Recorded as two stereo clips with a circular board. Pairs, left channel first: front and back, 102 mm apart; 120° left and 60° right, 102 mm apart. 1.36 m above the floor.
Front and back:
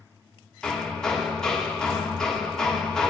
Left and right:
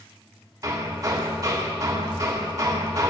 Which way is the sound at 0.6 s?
80° right.